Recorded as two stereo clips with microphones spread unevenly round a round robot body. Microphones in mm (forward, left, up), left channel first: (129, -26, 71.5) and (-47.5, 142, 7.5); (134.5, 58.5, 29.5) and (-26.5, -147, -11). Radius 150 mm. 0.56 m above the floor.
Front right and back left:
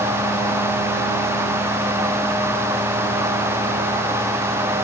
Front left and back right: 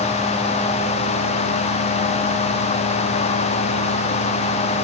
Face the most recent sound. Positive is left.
No sound to turn to.